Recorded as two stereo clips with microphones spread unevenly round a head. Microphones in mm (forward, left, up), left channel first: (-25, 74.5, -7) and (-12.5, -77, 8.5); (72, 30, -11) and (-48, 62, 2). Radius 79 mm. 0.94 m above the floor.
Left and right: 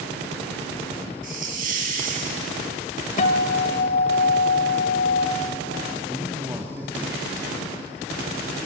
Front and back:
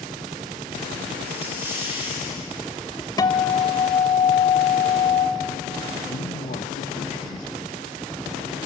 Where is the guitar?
45° left, 1.7 m.